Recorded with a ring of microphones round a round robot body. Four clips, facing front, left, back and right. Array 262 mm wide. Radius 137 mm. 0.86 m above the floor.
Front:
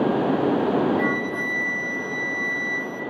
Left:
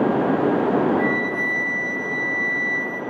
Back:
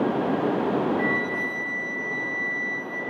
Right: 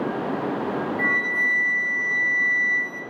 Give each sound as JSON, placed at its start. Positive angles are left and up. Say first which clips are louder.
{"t": 1.0, "sound": "a flute", "louder": "left 3 dB, front 2 dB", "azimuth_deg": -20, "distance_m": 1.1}